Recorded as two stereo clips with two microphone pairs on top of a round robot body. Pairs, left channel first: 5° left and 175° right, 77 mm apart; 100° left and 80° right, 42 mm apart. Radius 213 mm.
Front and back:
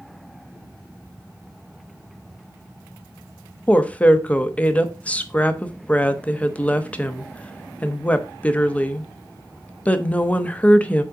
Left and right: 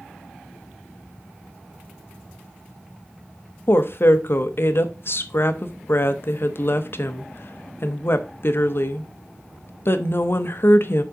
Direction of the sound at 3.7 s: 75° left.